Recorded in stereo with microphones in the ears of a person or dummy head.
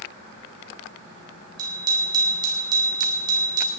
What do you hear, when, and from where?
1.6 s a bicycle bell: 30° right (ahead or behind), 5.5 m